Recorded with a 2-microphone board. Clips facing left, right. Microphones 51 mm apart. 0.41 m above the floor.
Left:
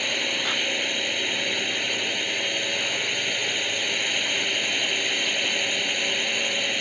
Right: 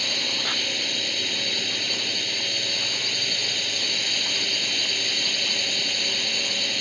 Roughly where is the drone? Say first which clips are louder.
Left 2 dB; left.